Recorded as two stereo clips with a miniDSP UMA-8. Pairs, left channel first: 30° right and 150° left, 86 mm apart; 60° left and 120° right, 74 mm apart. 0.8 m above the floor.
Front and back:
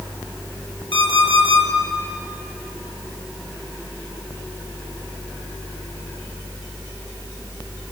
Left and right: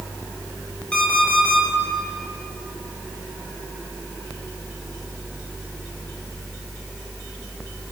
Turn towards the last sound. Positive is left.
turn(degrees=-15)